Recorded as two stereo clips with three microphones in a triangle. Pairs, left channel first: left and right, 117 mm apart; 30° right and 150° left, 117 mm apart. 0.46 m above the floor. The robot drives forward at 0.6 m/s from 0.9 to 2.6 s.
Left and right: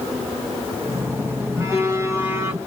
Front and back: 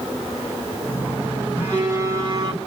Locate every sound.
1.6 s a phone buzzing: 145° right, 1.6 m; by 2.6 s 155° right, 2 m